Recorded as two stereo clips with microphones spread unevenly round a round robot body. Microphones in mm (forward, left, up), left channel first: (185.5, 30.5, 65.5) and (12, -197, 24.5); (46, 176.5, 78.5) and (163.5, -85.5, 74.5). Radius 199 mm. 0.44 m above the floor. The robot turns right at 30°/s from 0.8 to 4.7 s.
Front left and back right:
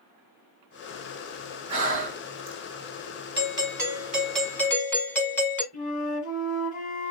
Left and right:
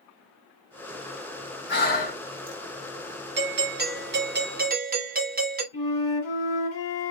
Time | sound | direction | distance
1.7 | breathing | 165° left | 0.7 m
3.4 | a doorbell | 80° right | 1.3 m
5.7 | a flute | 125° left | 2.5 m